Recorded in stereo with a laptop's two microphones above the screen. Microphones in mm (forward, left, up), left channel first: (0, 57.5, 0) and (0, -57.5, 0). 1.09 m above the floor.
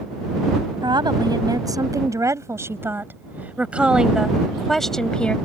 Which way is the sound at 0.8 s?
40° right (ahead or behind).